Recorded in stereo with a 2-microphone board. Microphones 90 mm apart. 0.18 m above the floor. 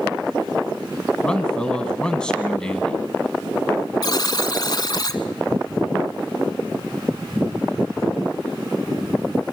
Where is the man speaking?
10° left (ahead or behind), 1.2 m.